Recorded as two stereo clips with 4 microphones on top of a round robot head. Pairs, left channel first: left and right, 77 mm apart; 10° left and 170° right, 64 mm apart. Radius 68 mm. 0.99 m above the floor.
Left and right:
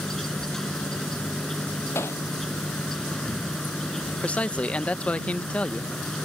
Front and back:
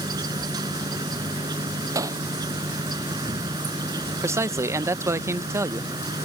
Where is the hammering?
155° left.